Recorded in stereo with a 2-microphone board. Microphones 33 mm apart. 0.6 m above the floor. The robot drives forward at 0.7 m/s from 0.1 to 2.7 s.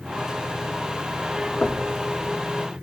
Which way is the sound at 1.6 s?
50° left (ahead or behind).